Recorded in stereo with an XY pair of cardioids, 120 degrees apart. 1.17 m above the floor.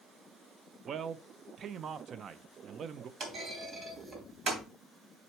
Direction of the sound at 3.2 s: 40° right.